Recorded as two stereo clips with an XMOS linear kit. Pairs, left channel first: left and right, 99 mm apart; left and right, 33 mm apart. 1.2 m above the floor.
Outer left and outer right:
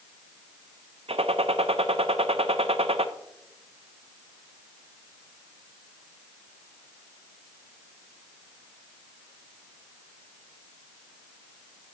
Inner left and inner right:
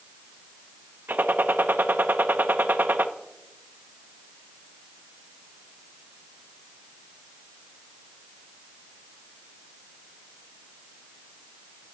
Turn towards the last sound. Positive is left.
turn(degrees=-80)